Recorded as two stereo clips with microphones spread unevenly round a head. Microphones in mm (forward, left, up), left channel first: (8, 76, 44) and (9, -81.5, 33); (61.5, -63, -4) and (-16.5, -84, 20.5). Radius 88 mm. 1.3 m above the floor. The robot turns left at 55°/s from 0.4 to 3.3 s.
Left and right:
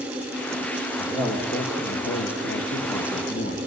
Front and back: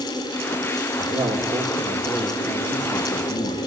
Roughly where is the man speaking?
Behind.